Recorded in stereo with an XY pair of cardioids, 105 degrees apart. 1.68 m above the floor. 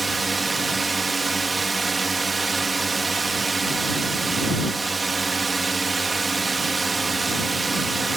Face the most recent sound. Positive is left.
turn(degrees=-25)